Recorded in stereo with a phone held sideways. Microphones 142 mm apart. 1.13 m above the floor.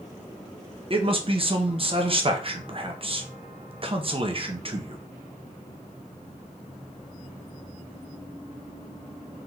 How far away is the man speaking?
About 0.7 m.